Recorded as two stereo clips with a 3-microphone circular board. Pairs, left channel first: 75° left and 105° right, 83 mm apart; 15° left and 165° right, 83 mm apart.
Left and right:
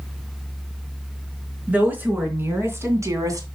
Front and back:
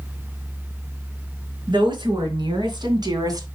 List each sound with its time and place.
1.7 s a woman speaking: 175° right, 3.5 m; by 3.5 s 140° right, 2 m